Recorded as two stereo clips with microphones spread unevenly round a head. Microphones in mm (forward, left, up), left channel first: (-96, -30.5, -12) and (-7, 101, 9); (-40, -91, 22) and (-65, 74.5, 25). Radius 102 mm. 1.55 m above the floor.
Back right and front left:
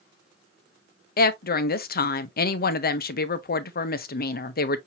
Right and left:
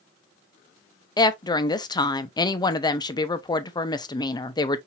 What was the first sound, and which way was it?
A woman speaking, 145° right.